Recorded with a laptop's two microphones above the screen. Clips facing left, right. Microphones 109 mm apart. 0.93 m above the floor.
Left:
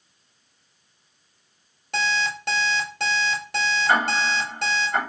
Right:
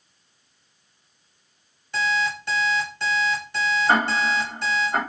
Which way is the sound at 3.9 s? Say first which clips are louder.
Even; 15° right (ahead or behind).